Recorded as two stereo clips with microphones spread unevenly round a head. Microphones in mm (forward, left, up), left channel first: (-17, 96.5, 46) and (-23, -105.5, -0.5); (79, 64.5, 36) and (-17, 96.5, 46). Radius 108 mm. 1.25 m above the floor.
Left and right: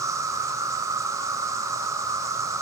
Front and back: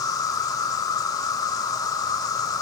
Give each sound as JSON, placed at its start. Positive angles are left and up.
{"t": 0.0, "sound": "an insect", "azimuth_deg": -5, "distance_m": 0.8}